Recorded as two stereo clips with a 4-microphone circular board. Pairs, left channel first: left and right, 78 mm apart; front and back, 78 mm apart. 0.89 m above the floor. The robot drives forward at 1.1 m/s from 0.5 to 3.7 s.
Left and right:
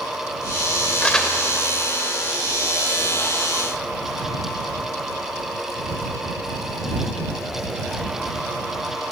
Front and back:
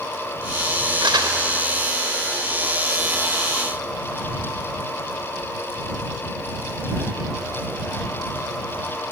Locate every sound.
1.0 s crumpling: 170° left, 1.9 m